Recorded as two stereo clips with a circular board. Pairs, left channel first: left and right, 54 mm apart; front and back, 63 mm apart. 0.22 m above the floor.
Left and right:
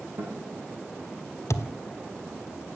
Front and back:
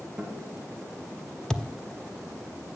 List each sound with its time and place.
0.2 s a guitar: 100° right, 5.5 m
1.5 s a thud: 80° left, 0.8 m